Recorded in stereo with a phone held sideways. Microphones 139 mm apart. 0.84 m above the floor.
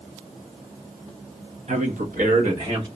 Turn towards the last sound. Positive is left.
turn(degrees=-45)  # may be behind; listen again after turning